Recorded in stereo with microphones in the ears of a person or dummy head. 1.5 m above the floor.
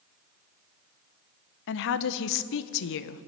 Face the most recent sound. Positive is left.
turn(degrees=65)  # may be behind; listen again after turning